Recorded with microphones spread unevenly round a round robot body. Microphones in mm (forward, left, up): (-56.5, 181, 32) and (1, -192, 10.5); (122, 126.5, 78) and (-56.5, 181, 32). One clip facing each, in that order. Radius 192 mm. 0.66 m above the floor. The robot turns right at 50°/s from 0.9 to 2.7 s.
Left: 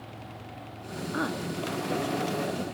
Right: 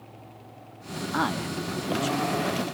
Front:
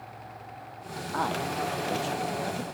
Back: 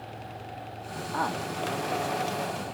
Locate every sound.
1.1 s a man speaking: 130° right, 1.3 m; by 2.6 s 55° right, 1.3 m